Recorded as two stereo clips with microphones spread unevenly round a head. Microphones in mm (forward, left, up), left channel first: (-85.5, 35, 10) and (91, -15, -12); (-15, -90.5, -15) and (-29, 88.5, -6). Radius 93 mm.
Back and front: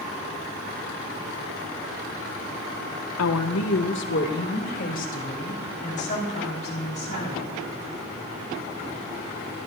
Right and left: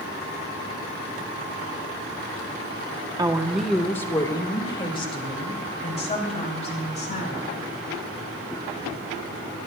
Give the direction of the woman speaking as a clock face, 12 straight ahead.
7 o'clock.